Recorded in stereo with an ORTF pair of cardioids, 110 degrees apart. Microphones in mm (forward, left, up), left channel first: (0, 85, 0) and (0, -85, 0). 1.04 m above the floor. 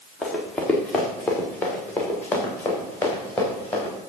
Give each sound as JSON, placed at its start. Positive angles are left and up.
{"t": 0.2, "sound": "running footsteps", "azimuth_deg": 5, "distance_m": 4.5}